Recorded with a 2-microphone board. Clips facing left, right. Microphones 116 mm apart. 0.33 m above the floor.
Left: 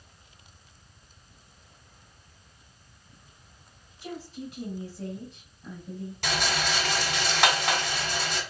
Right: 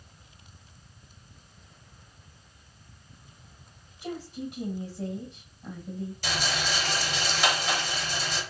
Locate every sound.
4.0 s a woman speaking: 20° right (ahead or behind), 2 m
6.2 s a rattle: 70° left (ahead or behind), 1.7 m